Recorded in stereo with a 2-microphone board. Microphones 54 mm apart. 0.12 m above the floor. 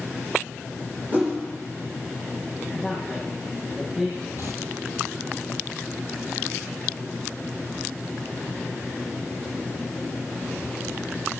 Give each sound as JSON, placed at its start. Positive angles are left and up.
{"t": 1.1, "sound": "a whoosh", "side_deg": -30, "distance_m": 3.5}
{"t": 2.7, "sound": "a man speaking", "side_deg": -5, "distance_m": 4.5}
{"t": 4.4, "sound": "tearing paper", "side_deg": -55, "distance_m": 1.7}